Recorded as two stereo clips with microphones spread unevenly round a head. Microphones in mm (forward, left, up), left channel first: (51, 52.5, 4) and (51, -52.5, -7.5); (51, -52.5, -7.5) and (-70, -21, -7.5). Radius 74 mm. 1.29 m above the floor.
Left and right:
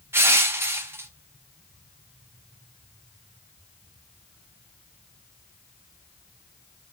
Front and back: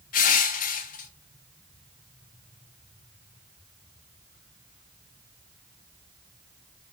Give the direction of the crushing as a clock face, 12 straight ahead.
1 o'clock.